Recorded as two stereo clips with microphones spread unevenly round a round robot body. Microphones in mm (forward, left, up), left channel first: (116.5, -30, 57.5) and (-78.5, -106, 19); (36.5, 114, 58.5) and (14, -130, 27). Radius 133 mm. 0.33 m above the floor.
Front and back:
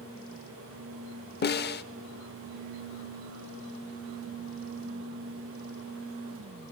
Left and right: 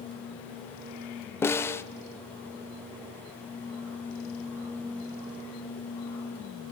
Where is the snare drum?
Straight ahead, 0.6 m.